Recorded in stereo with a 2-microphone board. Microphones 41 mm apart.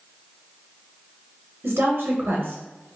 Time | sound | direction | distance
1.6 | a woman speaking | 75° right (ahead or behind) | 0.6 m